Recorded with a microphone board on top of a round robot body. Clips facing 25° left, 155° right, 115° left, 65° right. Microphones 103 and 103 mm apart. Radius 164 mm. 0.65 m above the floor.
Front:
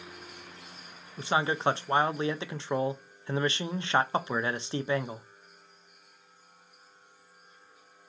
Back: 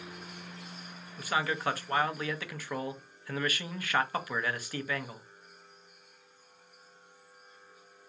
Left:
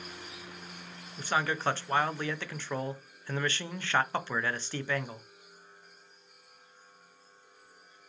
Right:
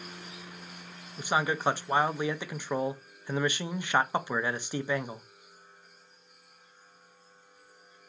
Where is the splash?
No splash in this recording.